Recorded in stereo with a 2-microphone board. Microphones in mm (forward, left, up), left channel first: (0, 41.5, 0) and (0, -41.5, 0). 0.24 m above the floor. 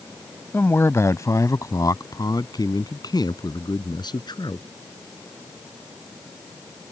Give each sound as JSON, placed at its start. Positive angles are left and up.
{"t": 0.5, "sound": "a man speaking", "side_deg": 30}